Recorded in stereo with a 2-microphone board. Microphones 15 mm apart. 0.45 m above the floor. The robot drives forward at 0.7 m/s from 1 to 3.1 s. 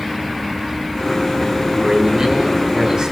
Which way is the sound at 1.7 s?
50° right (ahead or behind).